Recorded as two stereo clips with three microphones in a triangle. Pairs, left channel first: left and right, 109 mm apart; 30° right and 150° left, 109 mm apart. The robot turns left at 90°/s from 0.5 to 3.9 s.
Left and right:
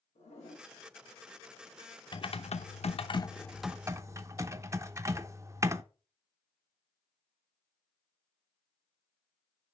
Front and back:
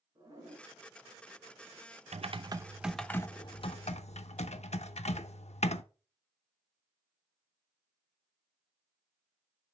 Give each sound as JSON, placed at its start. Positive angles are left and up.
{"t": 0.1, "sound": "a zipper", "azimuth_deg": 95, "distance_m": 4.5}
{"t": 2.1, "sound": "typing on a keyboard", "azimuth_deg": 135, "distance_m": 0.5}